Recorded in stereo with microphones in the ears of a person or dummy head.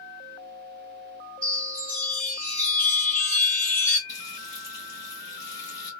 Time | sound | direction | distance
1.4 | a chime | 5° left (ahead or behind) | 1.5 m
4.1 | frying | 20° left (ahead or behind) | 2 m